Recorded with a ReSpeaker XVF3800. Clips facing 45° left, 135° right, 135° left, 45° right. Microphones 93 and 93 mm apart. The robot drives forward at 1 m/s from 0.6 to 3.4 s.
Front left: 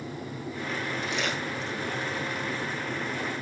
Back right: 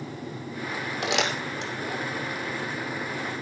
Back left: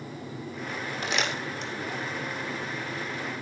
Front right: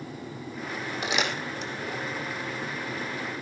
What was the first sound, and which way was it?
Crumpling, 130° right.